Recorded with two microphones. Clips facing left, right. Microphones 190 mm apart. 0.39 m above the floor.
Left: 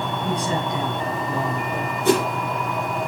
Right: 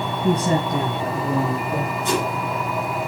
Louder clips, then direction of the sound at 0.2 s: Right 7 dB; 50° right (ahead or behind).